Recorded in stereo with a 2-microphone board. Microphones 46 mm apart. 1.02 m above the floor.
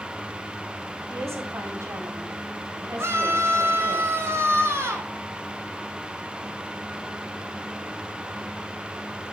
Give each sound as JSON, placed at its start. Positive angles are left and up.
{"t": 1.1, "sound": "a woman speaking", "side_deg": -70, "distance_m": 9.0}
{"t": 3.0, "sound": "a scream", "side_deg": -60, "distance_m": 6.0}